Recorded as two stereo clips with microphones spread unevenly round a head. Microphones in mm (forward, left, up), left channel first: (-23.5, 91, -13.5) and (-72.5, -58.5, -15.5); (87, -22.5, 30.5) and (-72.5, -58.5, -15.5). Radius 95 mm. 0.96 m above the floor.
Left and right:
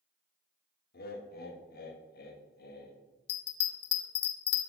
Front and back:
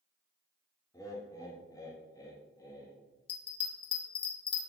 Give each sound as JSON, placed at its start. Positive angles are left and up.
{"t": 0.9, "sound": "laughter", "azimuth_deg": 90, "distance_m": 1.3}
{"t": 3.3, "sound": "a bell", "azimuth_deg": 70, "distance_m": 0.8}